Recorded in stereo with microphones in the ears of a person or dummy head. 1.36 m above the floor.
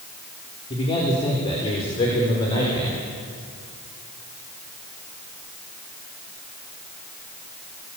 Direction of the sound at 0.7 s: 35° left (ahead or behind).